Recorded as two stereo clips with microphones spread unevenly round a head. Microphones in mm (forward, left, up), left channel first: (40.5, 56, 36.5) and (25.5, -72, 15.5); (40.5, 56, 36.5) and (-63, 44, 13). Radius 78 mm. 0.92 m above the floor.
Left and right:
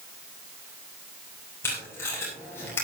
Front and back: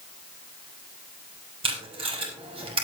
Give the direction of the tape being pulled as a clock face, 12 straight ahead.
7 o'clock.